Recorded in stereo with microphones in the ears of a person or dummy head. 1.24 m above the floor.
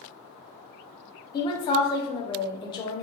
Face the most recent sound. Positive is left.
turn(degrees=20)  # may be behind; listen again after turning